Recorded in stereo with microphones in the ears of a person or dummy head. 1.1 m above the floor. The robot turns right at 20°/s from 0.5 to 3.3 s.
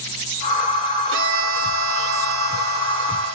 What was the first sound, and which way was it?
A violin, 110° right.